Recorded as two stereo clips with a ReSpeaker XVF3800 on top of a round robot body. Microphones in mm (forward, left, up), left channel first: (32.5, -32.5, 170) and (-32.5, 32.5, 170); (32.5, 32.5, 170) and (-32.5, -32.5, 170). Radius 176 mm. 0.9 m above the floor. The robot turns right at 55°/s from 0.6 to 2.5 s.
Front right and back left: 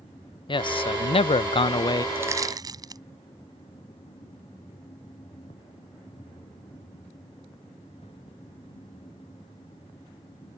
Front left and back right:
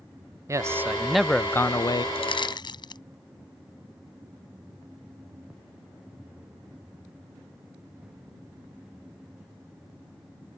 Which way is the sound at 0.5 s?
75° right.